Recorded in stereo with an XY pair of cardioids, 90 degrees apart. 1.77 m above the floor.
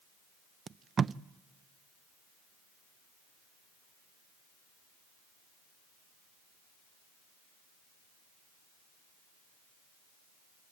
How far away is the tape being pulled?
About 0.6 m.